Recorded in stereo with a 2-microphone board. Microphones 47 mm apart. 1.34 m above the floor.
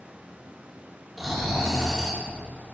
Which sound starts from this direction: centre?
Snoring, at 1.2 s.